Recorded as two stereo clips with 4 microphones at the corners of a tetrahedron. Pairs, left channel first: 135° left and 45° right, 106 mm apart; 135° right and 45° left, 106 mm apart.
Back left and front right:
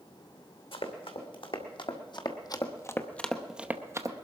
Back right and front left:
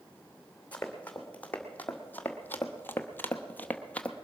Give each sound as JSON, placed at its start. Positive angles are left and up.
{"t": 0.7, "sound": "running footsteps", "azimuth_deg": 150, "distance_m": 2.0}